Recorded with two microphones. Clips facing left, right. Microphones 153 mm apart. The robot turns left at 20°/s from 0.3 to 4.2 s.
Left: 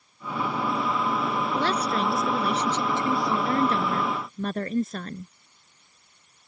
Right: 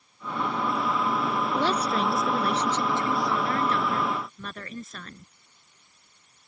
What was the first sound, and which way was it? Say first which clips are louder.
A woman speaking: right 1 dB; 170° right.